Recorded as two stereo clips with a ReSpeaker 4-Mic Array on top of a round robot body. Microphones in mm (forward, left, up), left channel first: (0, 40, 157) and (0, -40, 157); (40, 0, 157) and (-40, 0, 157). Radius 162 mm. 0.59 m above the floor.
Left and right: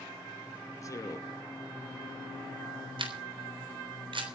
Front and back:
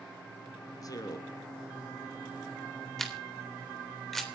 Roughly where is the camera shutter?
Right.